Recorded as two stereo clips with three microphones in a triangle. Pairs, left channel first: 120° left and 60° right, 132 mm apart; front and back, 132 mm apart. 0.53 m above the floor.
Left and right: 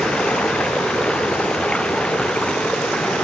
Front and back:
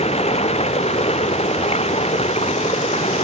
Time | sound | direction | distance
0.0 | running water | 35° left | ?